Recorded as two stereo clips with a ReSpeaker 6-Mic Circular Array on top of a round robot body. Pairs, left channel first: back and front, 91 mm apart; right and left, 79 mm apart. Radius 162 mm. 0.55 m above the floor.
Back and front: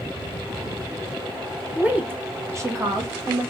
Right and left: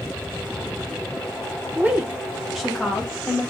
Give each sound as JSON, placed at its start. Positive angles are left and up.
{"t": 1.8, "sound": "a woman speaking", "azimuth_deg": 55, "distance_m": 1.1}